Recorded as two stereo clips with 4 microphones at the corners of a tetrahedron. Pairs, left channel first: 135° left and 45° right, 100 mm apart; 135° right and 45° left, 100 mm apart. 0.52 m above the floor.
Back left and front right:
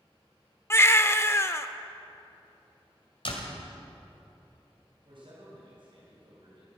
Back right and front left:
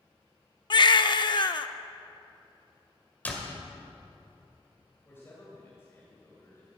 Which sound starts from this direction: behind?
A baby crying, at 0.7 s.